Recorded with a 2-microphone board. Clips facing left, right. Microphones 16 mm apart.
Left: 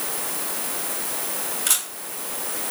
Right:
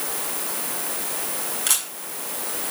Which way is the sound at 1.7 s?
15° right (ahead or behind).